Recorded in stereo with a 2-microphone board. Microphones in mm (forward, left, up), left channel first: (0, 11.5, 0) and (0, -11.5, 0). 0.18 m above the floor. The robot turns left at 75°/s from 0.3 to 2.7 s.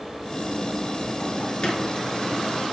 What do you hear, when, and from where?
1.6 s a squeak: 40° left (ahead or behind), 0.8 m; by 1.9 s 25° left (ahead or behind), 0.8 m